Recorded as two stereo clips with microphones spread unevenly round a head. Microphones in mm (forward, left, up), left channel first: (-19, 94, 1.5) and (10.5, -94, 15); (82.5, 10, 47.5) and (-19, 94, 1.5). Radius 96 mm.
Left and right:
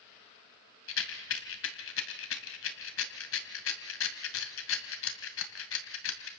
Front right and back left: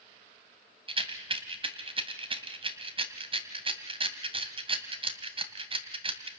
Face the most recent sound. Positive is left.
turn(degrees=90)